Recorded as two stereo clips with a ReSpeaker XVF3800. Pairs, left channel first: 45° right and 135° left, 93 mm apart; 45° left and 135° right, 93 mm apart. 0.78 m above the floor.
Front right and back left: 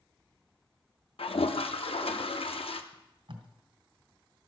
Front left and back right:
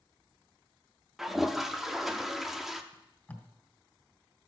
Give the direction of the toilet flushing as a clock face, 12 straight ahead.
2 o'clock.